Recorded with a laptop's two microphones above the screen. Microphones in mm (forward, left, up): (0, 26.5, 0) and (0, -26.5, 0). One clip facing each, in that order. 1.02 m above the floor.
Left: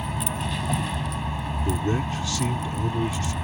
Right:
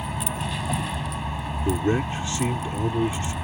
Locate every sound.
0.0 s a vehicle: 5° right (ahead or behind)
1.6 s a man speaking: 30° right (ahead or behind)